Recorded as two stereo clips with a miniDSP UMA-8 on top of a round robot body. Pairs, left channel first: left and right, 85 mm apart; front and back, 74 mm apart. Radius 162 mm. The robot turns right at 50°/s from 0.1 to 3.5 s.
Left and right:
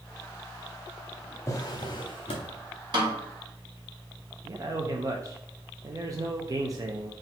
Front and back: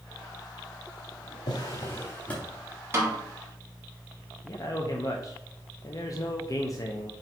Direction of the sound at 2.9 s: 125° right.